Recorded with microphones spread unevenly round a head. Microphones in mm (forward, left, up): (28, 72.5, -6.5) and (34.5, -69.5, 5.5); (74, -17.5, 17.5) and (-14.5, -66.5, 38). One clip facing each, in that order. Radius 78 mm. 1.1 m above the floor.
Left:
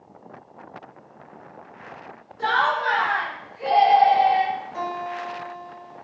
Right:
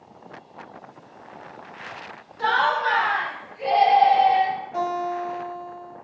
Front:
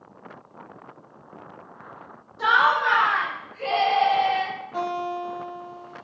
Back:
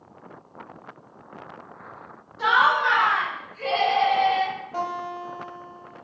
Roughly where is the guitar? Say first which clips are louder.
Right 4 dB, front 4 dB; right.